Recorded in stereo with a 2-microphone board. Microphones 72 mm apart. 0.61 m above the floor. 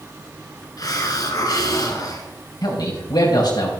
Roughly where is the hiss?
Left.